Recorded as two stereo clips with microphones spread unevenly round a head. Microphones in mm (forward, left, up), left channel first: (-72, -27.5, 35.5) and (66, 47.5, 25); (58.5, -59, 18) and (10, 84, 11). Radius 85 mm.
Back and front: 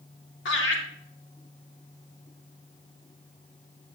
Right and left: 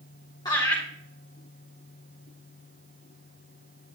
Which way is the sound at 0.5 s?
140° right.